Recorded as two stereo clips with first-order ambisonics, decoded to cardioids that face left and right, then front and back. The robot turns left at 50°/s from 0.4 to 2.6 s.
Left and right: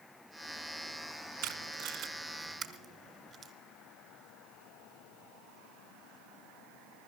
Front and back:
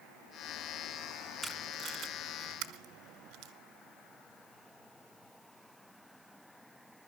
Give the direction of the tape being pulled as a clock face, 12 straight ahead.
3 o'clock.